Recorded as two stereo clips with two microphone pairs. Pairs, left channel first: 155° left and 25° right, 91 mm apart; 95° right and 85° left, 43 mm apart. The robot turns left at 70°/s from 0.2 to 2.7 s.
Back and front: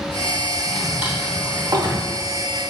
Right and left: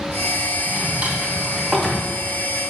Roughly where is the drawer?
Left.